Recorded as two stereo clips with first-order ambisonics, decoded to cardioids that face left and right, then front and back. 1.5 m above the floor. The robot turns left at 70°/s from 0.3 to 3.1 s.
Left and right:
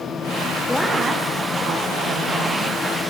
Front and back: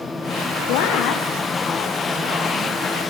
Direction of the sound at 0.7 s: 10° left.